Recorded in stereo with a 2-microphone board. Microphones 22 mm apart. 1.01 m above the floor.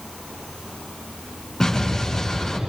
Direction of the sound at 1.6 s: 15° left (ahead or behind).